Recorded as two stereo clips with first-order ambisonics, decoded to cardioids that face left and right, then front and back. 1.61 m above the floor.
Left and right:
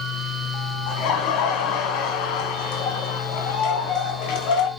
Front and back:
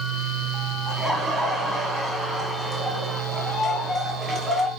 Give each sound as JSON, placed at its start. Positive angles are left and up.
{"t": 0.9, "sound": "laughter", "azimuth_deg": 105, "distance_m": 1.4}